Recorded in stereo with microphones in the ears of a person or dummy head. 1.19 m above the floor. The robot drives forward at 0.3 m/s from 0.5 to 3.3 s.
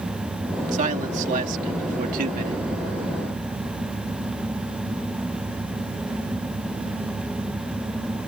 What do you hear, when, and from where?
0.7 s a man speaking: 45° right (ahead or behind); by 2.6 s 50° right (ahead or behind)